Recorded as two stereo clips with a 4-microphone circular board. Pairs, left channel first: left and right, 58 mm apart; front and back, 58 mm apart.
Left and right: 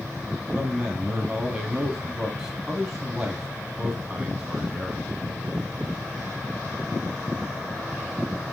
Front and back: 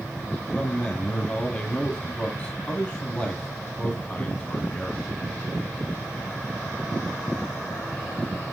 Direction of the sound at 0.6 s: 30° right.